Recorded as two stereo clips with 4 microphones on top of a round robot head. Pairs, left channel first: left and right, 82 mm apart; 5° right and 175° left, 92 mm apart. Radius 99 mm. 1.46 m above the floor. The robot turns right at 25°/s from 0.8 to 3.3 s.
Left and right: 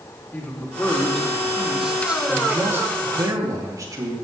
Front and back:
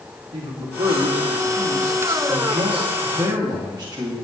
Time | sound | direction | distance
0.3 | a man speaking | 165° left | 3 m